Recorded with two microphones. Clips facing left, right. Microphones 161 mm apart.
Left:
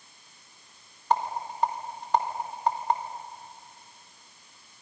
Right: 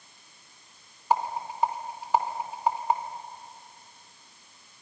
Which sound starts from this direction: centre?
A rattle, at 1.1 s.